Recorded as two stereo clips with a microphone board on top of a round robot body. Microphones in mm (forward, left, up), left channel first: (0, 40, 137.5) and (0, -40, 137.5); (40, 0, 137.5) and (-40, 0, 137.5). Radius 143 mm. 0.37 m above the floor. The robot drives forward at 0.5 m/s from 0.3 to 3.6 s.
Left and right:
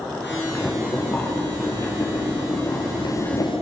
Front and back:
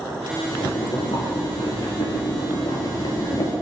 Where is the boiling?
25° left, 2.5 m; by 3.5 s 50° left, 1.4 m.